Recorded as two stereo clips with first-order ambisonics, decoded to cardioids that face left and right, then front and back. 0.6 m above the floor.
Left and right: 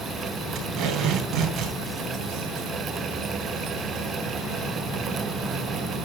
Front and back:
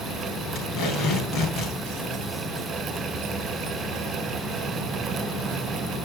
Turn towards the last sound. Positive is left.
turn(degrees=-45)